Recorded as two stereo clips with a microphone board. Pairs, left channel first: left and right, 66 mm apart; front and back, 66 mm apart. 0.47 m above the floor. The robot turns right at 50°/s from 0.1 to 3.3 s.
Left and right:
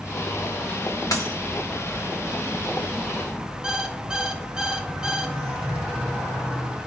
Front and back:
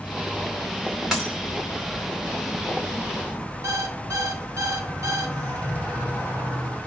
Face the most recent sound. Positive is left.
turn(degrees=-165)